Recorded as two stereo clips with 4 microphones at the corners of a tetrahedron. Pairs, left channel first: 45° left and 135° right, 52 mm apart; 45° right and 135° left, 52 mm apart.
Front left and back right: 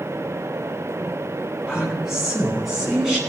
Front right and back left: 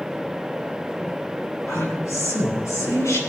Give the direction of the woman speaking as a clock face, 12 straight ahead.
2 o'clock.